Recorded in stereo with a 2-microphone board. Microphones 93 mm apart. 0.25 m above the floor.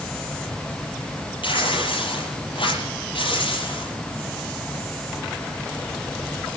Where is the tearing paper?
65° left (ahead or behind), 6.5 m.